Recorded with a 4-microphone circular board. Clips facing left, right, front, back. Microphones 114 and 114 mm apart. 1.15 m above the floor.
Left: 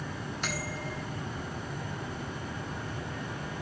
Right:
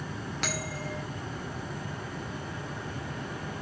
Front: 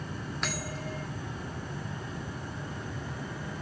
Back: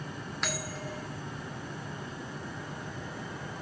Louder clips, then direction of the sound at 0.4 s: Right 2 dB, back 1 dB; 90° right.